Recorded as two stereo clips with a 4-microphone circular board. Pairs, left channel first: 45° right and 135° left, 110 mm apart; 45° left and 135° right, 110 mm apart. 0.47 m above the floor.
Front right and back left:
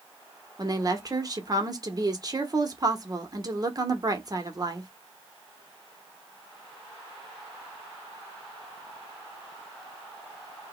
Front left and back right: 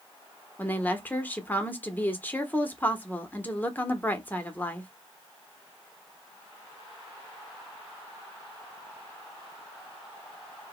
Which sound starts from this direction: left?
A woman speaking, at 0.6 s.